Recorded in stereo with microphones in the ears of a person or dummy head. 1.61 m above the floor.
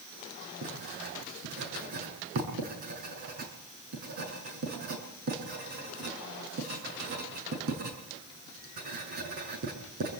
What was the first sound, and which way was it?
Writing, 50° right (ahead or behind).